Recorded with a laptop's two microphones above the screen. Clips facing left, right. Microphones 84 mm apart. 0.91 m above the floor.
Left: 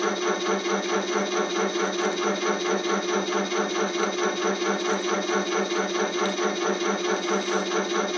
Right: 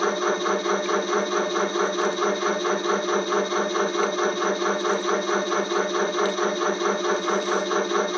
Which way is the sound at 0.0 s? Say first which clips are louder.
Right 2 dB; 50° right (ahead or behind).